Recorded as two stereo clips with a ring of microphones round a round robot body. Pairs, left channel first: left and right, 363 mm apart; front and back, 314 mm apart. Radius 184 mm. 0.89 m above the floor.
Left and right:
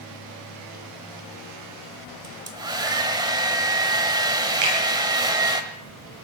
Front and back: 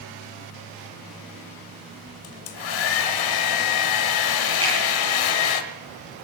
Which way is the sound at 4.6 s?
105° right.